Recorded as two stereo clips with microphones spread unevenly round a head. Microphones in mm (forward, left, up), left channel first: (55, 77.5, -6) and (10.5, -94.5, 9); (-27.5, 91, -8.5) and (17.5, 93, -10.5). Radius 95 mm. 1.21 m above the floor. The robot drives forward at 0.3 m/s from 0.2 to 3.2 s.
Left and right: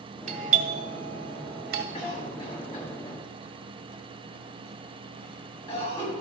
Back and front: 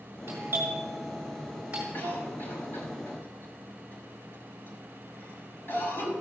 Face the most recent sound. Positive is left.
turn(degrees=150)